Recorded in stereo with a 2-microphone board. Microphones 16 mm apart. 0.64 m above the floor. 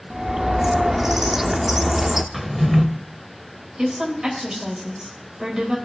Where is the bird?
20° right (ahead or behind), 0.5 m.